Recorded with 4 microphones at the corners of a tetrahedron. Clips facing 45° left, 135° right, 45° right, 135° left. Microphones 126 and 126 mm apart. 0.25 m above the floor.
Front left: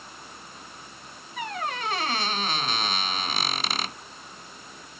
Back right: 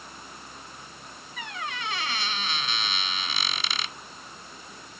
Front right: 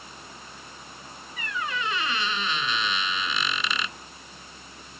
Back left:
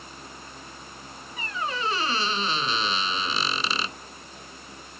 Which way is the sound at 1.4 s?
85° left.